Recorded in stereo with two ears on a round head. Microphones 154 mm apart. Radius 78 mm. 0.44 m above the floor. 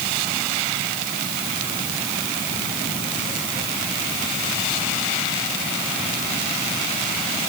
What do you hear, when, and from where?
Only background noise.